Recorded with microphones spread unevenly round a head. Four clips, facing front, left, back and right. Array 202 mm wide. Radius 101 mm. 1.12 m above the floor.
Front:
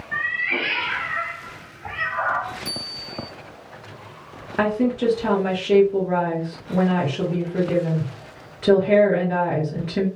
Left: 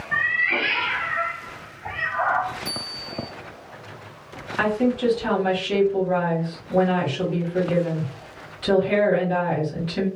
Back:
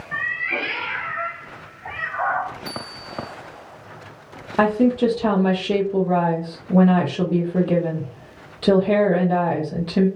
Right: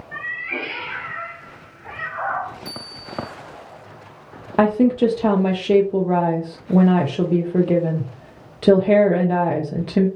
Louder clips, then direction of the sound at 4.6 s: Right 6 dB, back 4 dB; 95° right.